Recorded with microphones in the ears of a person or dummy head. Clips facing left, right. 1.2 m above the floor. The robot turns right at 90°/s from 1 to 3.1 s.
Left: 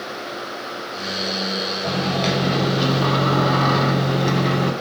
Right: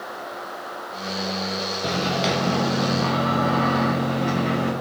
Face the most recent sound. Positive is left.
turn(degrees=75)